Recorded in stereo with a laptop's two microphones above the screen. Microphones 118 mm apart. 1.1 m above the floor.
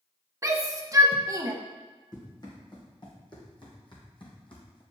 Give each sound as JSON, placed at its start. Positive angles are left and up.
{"t": 0.4, "sound": "a shout", "side_deg": -30, "distance_m": 1.1}
{"t": 2.1, "sound": "running footsteps", "side_deg": 40, "distance_m": 2.5}